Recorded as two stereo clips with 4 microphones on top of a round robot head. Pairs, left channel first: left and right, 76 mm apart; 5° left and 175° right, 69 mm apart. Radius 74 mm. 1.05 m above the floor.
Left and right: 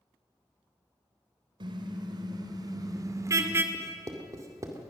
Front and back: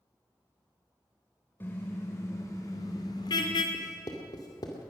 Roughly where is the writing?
Ahead right.